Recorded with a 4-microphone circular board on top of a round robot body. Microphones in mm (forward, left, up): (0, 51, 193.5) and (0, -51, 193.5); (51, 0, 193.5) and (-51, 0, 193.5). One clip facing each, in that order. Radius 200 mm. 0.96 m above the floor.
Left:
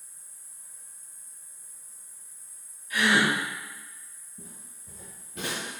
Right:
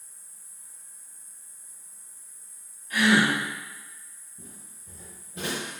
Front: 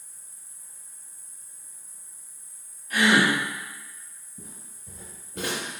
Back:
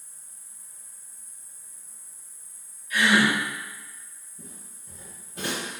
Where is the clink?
I don't hear a clink.